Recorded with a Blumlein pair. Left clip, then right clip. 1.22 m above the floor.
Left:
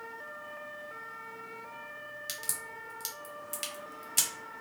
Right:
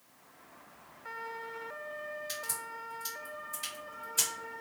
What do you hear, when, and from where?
2.3 s a crack: 50° left, 1.4 m